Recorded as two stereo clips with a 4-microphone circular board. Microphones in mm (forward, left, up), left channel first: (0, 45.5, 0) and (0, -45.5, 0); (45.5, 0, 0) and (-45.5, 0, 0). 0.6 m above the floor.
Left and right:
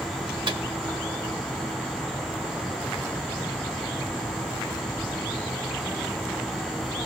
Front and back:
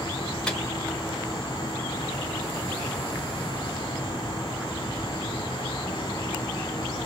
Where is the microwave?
80° right, 1.0 m.